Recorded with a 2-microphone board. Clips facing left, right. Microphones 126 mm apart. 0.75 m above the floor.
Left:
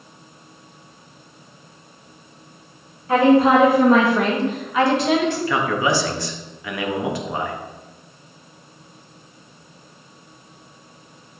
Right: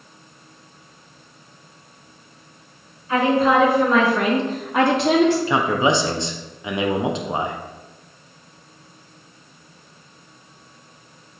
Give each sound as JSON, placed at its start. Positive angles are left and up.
{"t": 3.1, "sound": "a woman speaking", "side_deg": 75, "distance_m": 1.7}
{"t": 5.5, "sound": "a man speaking", "side_deg": -25, "distance_m": 0.5}